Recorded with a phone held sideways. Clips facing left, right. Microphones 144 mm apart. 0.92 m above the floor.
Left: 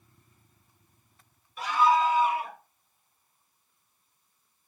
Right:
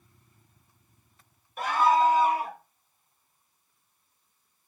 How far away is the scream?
About 1.4 m.